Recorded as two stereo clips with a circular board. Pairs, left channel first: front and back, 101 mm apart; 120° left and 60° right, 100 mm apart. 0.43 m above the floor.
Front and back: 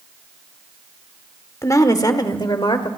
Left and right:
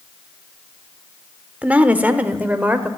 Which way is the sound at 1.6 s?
Straight ahead.